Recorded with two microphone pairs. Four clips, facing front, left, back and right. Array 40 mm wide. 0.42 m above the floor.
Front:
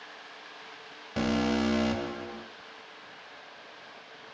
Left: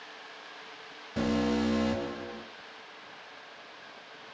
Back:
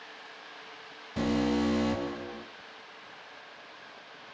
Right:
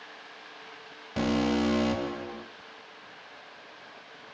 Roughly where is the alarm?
Ahead right.